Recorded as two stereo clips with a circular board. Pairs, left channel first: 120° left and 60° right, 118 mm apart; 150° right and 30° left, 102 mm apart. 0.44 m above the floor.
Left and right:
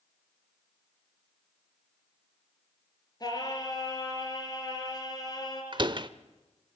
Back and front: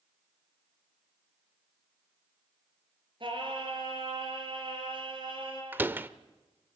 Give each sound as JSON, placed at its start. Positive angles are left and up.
{"t": 3.2, "sound": "singing", "azimuth_deg": 65, "distance_m": 5.0}
{"t": 5.7, "sound": "a door slam", "azimuth_deg": -35, "distance_m": 0.8}